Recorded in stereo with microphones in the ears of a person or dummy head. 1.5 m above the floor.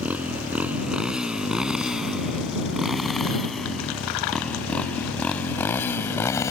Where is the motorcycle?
5° right (ahead or behind); by 6.5 s 15° left (ahead or behind).